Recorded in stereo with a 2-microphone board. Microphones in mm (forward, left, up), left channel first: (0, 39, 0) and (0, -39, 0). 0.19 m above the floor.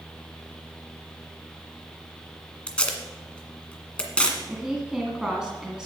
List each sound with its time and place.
2.7 s tape being pulled: 15° left (ahead or behind), 1.7 m
4.5 s a woman speaking: 10° right (ahead or behind), 1.6 m